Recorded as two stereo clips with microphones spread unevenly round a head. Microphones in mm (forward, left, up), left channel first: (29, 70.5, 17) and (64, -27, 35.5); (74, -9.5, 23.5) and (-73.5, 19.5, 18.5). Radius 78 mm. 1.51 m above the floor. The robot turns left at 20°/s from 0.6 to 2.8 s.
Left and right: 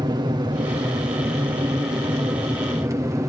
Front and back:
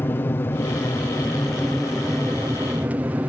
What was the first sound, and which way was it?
An aircraft, 75° right.